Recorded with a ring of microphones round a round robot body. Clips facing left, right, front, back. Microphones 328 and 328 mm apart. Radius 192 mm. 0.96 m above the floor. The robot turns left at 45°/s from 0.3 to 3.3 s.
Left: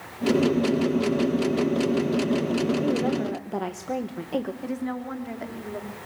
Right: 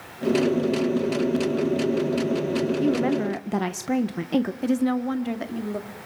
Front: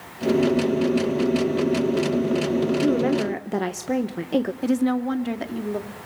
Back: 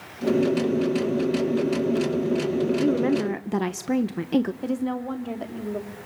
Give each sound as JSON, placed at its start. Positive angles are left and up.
{"t": 2.8, "sound": "a woman speaking", "azimuth_deg": -90, "distance_m": 0.9}
{"t": 4.6, "sound": "a woman speaking", "azimuth_deg": -55, "distance_m": 1.9}